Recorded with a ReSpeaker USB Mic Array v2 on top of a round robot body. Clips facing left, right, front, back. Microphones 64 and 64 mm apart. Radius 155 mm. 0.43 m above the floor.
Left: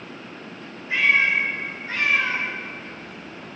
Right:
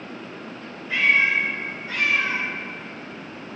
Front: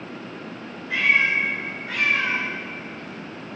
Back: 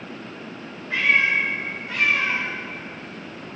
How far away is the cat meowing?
About 3.5 m.